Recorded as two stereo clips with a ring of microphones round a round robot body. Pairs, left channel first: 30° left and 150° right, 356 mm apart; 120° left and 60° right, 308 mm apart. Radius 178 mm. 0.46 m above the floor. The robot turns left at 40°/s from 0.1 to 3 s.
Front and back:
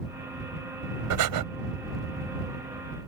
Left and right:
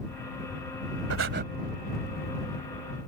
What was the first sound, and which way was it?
Breathing, 110° right.